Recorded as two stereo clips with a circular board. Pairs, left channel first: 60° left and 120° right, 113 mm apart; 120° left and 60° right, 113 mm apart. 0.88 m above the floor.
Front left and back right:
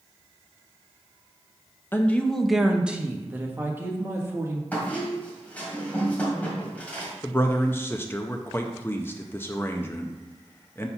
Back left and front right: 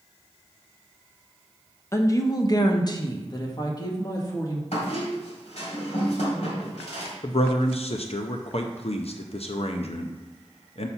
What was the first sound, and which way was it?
A woman speaking, 100° left.